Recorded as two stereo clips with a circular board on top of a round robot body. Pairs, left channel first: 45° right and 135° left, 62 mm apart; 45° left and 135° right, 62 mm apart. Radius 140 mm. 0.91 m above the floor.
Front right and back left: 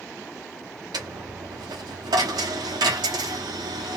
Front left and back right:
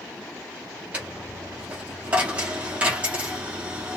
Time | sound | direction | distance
0.9 | a dropped coin | 155° left | 0.6 m